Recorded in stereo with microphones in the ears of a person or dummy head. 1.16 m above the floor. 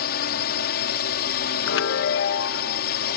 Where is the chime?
65° left (ahead or behind).